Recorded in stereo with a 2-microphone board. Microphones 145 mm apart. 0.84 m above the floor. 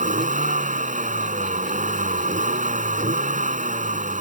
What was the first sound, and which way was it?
A vehicle, 65° right (ahead or behind).